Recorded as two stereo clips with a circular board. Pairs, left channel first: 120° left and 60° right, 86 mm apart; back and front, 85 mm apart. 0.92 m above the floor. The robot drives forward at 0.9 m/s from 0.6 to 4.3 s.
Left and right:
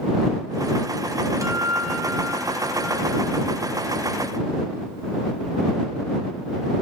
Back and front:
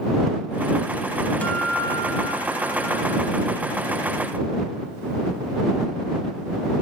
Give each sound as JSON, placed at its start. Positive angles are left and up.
{"t": 1.4, "sound": "a guitar", "azimuth_deg": -110, "distance_m": 1.1}